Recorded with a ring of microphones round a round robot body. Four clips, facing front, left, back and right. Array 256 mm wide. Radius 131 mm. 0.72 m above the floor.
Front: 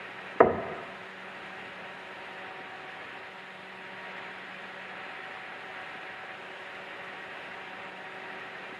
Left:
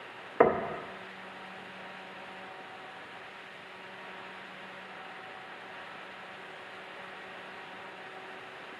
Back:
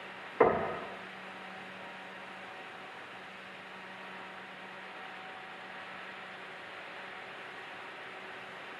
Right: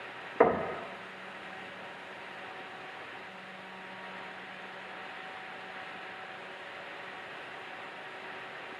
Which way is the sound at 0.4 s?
10° left.